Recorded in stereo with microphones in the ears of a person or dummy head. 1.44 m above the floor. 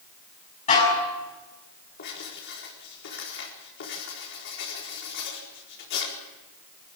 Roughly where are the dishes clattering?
Left.